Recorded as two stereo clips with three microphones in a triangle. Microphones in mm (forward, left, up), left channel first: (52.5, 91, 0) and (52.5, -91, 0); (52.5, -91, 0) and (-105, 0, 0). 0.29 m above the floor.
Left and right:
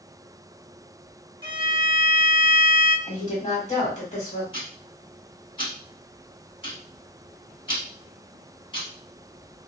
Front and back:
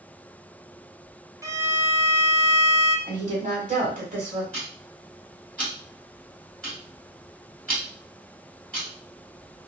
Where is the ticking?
50° left, 1.7 m.